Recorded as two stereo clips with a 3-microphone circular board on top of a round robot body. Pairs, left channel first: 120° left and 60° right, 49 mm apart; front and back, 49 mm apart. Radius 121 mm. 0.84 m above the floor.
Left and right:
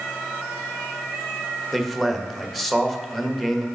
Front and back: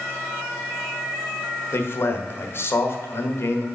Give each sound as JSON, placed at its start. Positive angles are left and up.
{"t": 1.7, "sound": "a man speaking", "azimuth_deg": 35, "distance_m": 1.3}